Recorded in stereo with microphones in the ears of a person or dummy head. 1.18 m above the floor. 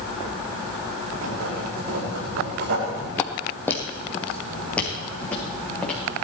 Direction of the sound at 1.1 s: 75° right (ahead or behind).